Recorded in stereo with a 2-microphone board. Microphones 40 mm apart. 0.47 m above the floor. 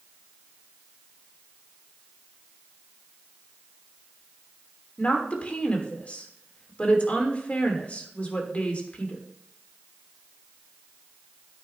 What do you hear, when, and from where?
5.0 s a woman speaking: 35° left (ahead or behind), 1.5 m